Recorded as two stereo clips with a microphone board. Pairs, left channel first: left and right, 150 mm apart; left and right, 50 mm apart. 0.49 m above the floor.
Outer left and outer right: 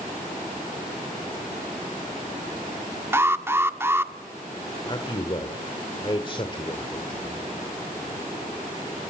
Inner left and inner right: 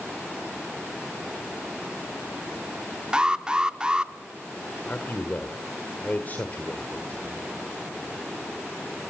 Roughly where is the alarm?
Centre.